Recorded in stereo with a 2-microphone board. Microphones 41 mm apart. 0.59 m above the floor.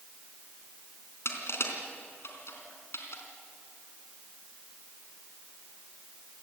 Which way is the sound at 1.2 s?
85° left.